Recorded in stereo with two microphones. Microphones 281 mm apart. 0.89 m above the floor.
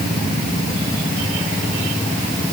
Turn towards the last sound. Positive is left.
No sound to turn to.